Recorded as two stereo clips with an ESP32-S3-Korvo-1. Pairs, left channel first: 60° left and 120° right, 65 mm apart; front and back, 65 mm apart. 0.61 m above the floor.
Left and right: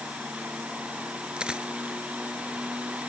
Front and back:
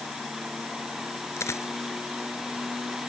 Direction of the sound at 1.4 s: 40° right.